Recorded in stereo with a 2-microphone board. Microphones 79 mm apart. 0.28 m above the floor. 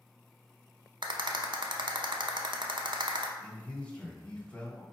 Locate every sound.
1.0 s a rattle: 75° right (ahead or behind), 0.7 m
3.4 s a man speaking: 15° left (ahead or behind), 1.3 m